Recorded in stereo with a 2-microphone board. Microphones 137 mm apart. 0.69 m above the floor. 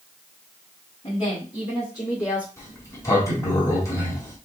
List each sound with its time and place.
1.0 s a woman speaking: 45° left (ahead or behind), 2 m; by 2.5 s 15° left (ahead or behind), 2 m
2.6 s a sliding door: 20° left (ahead or behind), 1.7 m